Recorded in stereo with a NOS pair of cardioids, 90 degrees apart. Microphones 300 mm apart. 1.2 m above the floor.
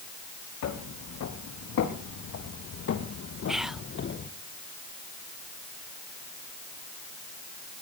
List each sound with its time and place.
0.6 s footsteps: 65° left, 4.5 m; by 4.3 s 40° left, 2 m
3.5 s whispering: straight ahead, 0.8 m